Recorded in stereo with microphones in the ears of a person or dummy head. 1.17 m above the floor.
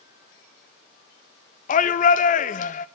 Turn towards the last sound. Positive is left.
turn(degrees=40)  # may be behind; listen again after turning